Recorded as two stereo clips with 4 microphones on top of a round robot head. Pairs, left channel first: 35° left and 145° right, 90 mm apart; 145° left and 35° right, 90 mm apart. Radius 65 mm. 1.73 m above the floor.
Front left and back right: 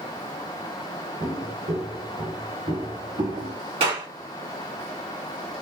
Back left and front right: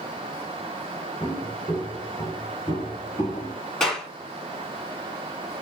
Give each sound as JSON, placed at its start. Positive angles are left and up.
{"t": 1.2, "sound": "footsteps", "azimuth_deg": -150, "distance_m": 4.0}
{"t": 3.8, "sound": "a clap", "azimuth_deg": -135, "distance_m": 3.5}